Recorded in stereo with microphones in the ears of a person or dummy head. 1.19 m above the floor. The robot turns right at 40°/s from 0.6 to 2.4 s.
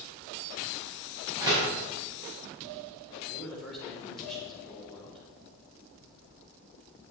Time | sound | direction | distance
1.4 | a door slam | 10° right (ahead or behind) | 5 m
3.3 | a man speaking | 5° left (ahead or behind) | 4.5 m